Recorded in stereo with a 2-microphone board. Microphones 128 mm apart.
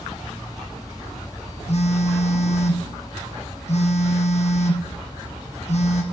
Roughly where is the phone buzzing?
Left.